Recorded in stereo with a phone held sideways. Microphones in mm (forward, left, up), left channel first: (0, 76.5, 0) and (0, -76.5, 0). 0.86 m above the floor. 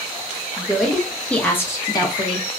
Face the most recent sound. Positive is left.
turn(degrees=40)  # may be behind; listen again after turning